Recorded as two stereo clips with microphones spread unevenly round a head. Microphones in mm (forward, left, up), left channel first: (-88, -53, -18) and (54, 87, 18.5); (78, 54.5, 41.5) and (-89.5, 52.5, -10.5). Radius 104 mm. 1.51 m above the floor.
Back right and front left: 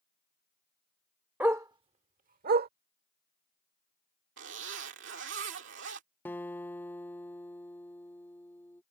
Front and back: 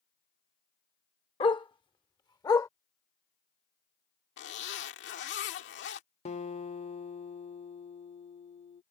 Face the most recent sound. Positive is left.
turn(degrees=-50)